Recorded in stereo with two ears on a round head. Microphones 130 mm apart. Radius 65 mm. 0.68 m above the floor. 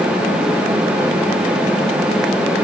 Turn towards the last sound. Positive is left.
No sound to turn to.